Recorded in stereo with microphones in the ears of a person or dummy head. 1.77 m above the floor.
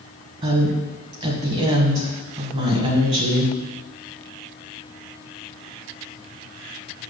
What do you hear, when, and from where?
0.4 s a woman speaking: 30° right (ahead or behind), 1.5 m